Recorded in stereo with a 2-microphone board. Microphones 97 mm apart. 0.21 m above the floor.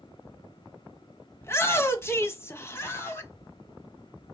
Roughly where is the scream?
Left.